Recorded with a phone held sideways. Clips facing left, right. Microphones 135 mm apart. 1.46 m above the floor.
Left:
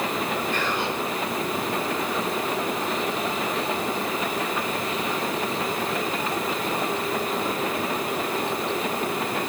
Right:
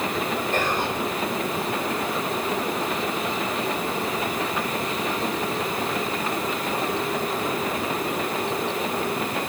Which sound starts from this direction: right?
Whispering, at 0.5 s.